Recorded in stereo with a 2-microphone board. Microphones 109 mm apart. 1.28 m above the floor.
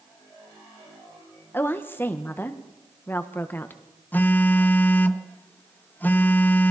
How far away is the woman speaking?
About 1.3 m.